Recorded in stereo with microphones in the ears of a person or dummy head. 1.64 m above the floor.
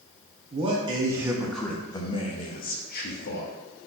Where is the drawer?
I don't hear a drawer.